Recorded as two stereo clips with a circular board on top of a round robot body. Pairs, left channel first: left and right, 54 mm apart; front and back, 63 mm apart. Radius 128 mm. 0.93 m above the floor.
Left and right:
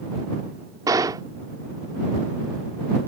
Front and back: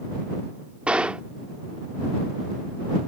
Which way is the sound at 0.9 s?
105° right.